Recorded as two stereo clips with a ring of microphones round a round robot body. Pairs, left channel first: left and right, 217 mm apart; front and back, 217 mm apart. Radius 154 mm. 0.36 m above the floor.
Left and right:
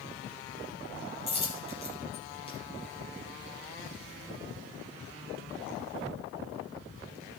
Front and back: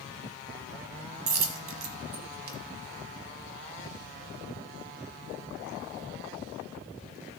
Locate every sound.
1.3 s a dropped coin: 165° left, 1.1 m